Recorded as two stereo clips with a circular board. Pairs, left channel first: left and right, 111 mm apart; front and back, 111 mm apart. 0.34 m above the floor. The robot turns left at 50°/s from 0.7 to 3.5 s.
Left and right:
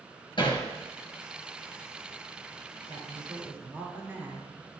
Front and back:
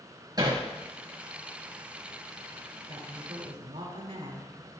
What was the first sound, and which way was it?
Hammering, 130° left.